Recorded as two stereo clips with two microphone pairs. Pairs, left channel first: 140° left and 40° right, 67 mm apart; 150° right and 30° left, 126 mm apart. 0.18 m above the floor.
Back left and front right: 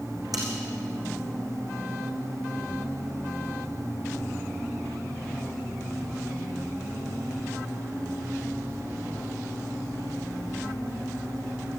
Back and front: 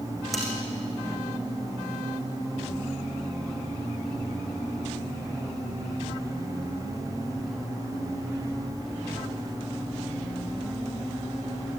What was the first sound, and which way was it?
Cutlery clinking, 60° right.